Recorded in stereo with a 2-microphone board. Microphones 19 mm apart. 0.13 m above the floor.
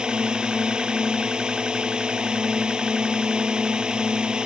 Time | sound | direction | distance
0.0 | a drone | 50° right (ahead or behind) | ?